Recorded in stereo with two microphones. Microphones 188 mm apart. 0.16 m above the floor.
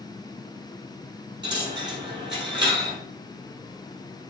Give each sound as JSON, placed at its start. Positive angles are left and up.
{"t": 1.4, "sound": "a dropped coin", "side_deg": -65, "distance_m": 2.0}